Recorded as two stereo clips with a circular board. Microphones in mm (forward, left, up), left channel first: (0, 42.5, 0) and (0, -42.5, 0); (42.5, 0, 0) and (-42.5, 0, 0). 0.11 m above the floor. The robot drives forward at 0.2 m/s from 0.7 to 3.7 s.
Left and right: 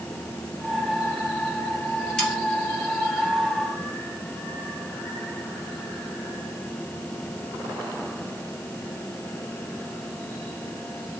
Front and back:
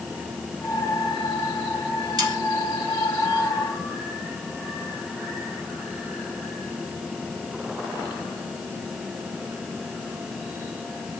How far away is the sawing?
About 2 m.